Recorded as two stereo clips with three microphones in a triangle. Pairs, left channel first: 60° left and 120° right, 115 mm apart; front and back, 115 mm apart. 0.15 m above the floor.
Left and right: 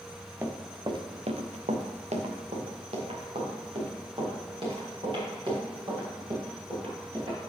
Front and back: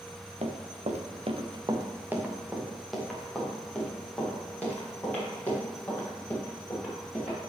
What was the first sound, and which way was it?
Running footsteps, 170° left.